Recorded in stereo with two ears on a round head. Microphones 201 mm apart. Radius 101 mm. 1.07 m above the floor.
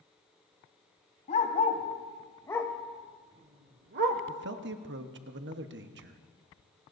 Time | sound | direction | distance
1.3 | a dog barking | 35° left (ahead or behind) | 2.0 m
4.3 | a man speaking | 55° right (ahead or behind) | 1.0 m